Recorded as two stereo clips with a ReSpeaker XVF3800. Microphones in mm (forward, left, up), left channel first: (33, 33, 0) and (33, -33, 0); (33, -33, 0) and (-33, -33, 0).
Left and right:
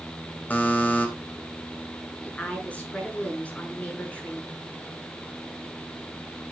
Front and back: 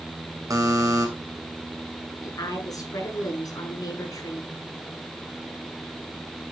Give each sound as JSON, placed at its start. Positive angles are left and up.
{"t": 0.5, "sound": "a buzzer", "azimuth_deg": 155, "distance_m": 3.0}
{"t": 2.2, "sound": "a woman speaking", "azimuth_deg": 20, "distance_m": 6.0}